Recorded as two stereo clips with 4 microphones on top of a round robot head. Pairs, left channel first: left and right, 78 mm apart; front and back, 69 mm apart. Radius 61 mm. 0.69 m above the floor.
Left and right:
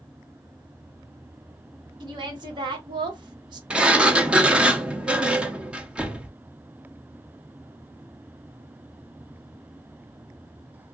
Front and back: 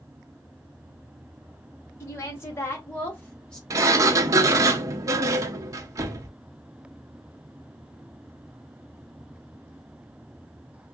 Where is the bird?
No bird in this recording.